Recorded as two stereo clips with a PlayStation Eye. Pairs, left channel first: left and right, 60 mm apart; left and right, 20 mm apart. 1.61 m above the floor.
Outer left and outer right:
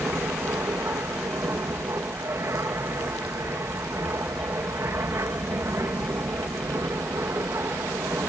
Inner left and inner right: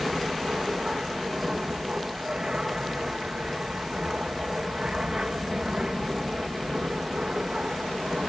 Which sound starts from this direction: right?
An aircraft, at 0.0 s.